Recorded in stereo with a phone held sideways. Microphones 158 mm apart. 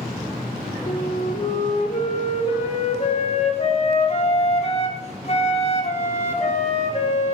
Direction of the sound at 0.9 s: 45° left (ahead or behind).